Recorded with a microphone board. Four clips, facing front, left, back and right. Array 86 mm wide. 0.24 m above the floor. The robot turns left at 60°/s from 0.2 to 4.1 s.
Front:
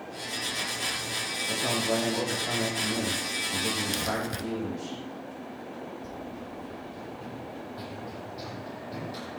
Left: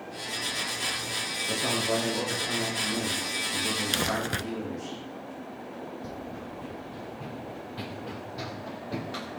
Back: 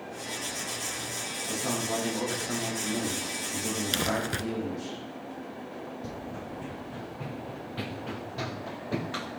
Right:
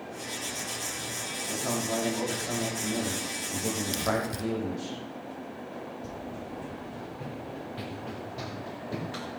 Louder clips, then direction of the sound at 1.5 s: Left 2 dB, front 3 dB; 65° left.